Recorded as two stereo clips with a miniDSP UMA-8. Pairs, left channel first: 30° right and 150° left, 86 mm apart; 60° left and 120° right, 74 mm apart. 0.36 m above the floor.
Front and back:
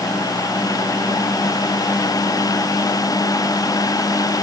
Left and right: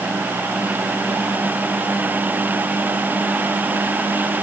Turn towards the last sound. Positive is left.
No sound to turn to.